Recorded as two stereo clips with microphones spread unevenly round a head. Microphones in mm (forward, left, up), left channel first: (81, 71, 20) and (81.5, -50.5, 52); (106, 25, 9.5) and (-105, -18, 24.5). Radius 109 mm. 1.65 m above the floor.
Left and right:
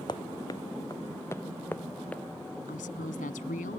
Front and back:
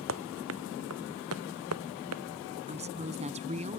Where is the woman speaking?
130° left.